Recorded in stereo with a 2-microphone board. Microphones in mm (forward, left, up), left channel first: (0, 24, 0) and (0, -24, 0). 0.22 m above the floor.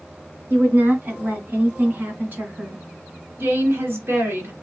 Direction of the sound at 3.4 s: 60° right (ahead or behind).